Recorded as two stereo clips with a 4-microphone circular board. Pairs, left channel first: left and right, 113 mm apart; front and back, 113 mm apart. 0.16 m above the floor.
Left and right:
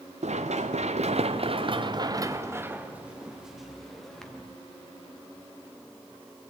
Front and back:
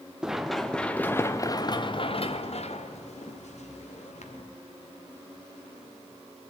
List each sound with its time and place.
0.2 s running footsteps: 95° right, 1.2 m; by 4.4 s 5° left, 1.9 m